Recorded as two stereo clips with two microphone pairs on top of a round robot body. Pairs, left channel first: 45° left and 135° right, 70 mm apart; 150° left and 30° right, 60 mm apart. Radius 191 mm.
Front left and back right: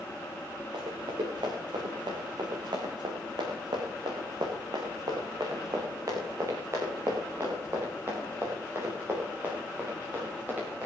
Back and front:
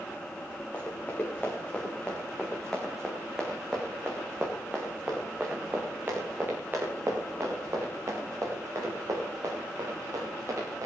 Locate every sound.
0.7 s running footsteps: 145° right, 3.5 m; by 10.9 s 70° right, 6 m